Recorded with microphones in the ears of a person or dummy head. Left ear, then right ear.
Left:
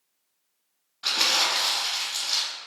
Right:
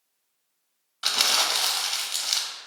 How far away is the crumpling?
About 0.6 m.